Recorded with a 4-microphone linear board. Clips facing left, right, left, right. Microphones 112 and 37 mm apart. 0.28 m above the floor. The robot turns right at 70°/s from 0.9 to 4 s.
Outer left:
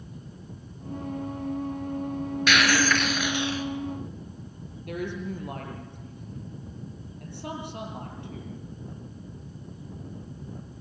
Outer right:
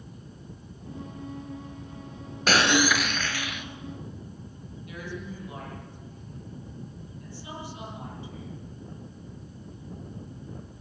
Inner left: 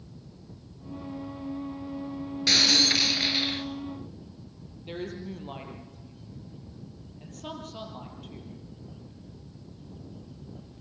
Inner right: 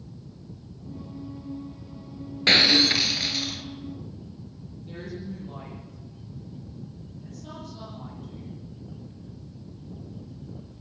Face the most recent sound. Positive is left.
turn(degrees=60)  # may be behind; listen again after turning